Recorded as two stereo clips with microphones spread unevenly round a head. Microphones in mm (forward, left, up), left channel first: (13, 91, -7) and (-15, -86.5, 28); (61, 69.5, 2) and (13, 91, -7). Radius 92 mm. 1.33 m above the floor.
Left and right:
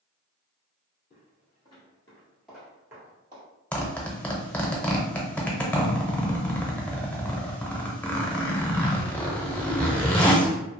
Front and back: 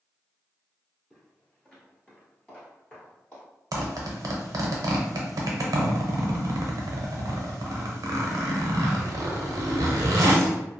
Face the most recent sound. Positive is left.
turn(degrees=160)